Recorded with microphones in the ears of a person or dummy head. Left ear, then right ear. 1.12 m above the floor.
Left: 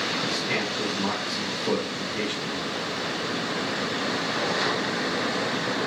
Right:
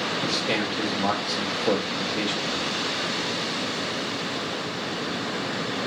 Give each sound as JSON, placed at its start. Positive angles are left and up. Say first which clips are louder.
{"t": 0.2, "sound": "a man speaking", "louder": "right 1 dB", "side_deg": -40, "distance_m": 0.7}